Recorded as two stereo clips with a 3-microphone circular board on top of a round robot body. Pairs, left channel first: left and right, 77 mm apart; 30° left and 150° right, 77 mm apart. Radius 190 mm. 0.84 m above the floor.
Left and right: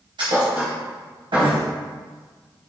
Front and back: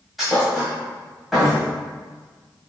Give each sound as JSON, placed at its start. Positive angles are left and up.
{"t": 0.2, "sound": "a thud", "azimuth_deg": -60, "distance_m": 1.2}